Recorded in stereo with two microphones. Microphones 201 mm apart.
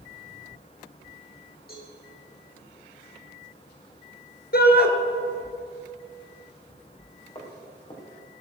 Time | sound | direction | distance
1.7 | a cowbell | 50° left (ahead or behind) | 6.5 m
4.5 | a shout | 55° left (ahead or behind) | 2.0 m
7.3 | footsteps | 25° left (ahead or behind) | 4 m